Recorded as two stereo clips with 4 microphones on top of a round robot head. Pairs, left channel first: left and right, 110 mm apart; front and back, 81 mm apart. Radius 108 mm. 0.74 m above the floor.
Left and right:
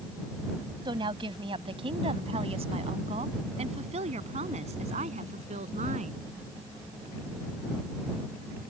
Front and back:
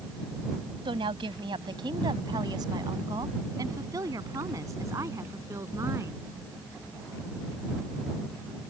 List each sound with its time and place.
0.8 s a woman speaking: 145° right; by 6.2 s 115° right